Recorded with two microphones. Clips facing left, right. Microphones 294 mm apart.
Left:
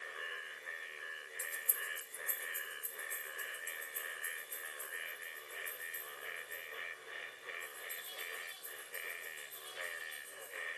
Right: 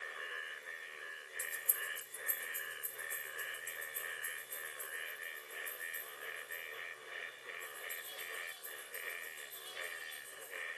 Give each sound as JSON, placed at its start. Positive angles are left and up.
{"t": 1.4, "sound": "keys jangling", "side_deg": -35, "distance_m": 1.0}